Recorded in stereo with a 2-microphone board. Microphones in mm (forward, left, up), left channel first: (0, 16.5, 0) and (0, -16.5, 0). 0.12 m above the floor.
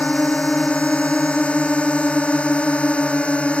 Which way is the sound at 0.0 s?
40° left (ahead or behind).